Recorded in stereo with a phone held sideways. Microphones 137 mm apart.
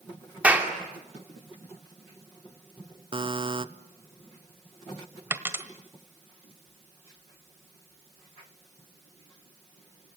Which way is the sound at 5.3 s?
15° right (ahead or behind).